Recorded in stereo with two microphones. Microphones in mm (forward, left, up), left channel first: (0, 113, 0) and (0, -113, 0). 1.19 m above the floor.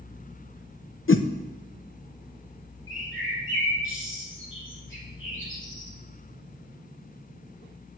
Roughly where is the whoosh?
Left.